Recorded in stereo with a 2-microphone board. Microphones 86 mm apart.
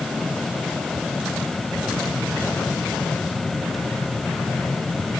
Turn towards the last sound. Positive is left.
No sound to turn to.